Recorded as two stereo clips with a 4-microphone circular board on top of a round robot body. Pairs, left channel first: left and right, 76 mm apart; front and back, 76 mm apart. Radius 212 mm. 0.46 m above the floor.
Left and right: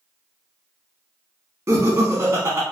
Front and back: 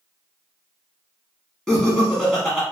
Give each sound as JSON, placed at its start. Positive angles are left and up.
{"t": 1.7, "sound": "laughter", "azimuth_deg": -80, "distance_m": 1.3}